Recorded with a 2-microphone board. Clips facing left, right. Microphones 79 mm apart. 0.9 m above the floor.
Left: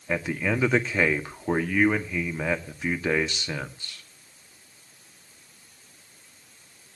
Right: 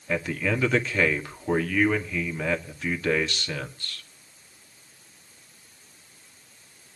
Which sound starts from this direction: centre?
A man speaking, at 0.1 s.